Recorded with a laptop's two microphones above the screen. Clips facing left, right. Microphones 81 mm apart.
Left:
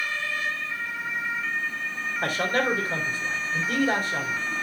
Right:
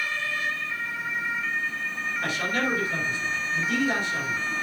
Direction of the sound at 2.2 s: 40° left (ahead or behind).